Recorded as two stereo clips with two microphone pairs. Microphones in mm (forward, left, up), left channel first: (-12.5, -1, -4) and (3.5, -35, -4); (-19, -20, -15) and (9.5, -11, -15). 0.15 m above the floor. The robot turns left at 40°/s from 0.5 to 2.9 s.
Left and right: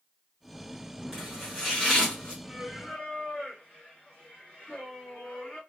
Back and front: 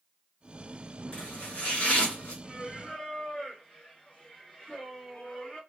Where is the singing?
170° right, 1.9 m; by 5.6 s 175° left, 1.9 m.